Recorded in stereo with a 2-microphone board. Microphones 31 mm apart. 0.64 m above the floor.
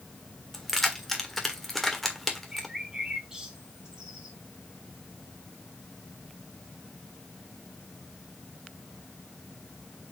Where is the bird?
20° right (ahead or behind), 2.5 m.